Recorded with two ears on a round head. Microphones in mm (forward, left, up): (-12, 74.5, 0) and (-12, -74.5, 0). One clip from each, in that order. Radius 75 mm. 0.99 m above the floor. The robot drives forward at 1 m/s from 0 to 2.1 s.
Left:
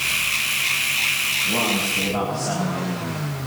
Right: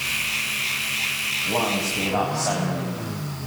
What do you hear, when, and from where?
1.4 s a man speaking: 50° right (ahead or behind), 5 m; by 3.5 s 45° right (ahead or behind), 5.5 m